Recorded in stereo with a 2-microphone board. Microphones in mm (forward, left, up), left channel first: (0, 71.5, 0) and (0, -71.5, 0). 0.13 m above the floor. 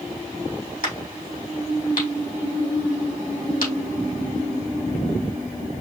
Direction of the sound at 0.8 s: 75° left (ahead or behind).